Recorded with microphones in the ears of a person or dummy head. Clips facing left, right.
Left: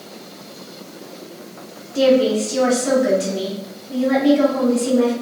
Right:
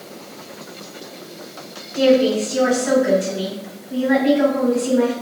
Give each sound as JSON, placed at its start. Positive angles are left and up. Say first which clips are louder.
{"t": 1.9, "sound": "a woman speaking", "louder": "even", "side_deg": 75, "distance_m": 1.9}